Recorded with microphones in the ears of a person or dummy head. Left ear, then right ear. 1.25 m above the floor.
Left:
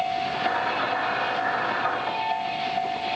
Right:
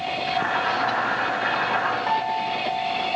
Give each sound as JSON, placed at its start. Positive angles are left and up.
{"t": 0.3, "sound": "boiling", "side_deg": -85, "distance_m": 2.0}
{"t": 2.1, "sound": "a piano", "side_deg": -85, "distance_m": 1.1}